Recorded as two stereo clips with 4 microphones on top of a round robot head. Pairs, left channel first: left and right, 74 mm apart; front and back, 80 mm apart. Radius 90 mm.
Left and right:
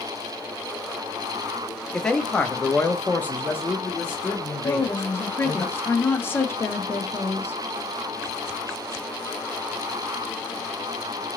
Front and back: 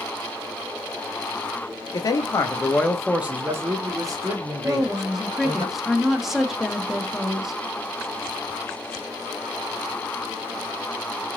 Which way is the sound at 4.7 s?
100° left.